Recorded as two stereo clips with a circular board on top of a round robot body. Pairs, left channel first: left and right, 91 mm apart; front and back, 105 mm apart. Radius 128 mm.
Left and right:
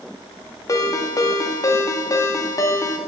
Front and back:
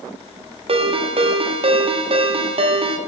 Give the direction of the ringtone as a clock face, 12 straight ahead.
7 o'clock.